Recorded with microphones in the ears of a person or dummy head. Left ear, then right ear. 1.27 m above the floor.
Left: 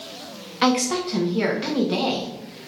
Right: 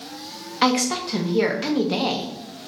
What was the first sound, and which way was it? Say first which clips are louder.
A woman speaking: even; 10° right (ahead or behind).